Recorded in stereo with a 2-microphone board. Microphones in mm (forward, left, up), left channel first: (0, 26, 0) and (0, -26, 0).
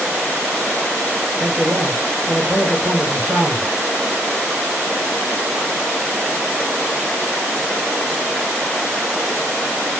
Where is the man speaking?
45° right (ahead or behind), 2.0 m.